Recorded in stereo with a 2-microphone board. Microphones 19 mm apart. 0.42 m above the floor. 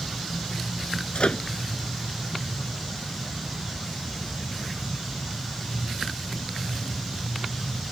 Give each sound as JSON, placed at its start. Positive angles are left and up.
{"t": 1.1, "sound": "a microwave", "side_deg": 70}